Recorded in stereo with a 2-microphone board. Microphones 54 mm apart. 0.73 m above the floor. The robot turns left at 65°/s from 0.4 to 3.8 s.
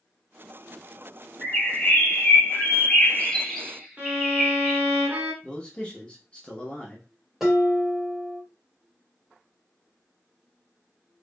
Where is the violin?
30° right (ahead or behind), 1.6 m.